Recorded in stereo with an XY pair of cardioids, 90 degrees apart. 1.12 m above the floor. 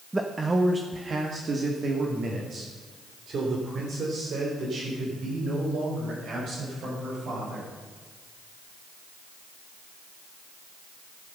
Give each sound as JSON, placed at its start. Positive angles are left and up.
{"t": 0.1, "sound": "a man speaking", "azimuth_deg": -20, "distance_m": 1.2}